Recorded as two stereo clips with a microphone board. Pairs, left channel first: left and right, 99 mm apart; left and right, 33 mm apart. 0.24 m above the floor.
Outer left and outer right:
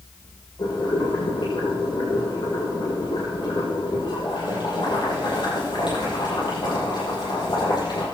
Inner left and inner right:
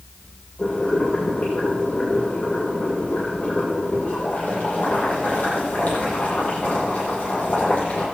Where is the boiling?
55° left (ahead or behind), 8 m.